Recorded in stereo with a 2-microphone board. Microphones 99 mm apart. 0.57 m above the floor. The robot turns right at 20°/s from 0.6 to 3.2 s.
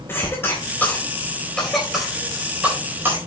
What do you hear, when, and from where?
0.1 s a cough: 25° left (ahead or behind), 3.5 m; by 3.2 s 25° right (ahead or behind), 3.5 m